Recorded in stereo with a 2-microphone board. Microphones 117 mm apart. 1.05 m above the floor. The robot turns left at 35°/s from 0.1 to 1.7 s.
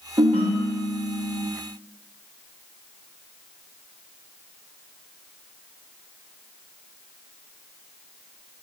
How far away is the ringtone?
About 0.6 m.